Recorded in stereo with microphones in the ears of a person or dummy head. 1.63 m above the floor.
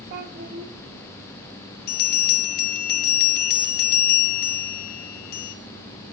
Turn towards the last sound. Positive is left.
turn(degrees=50)  # may be behind; listen again after turning